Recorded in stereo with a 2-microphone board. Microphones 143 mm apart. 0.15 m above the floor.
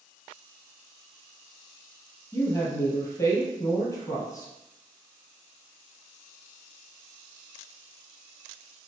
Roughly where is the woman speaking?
Left.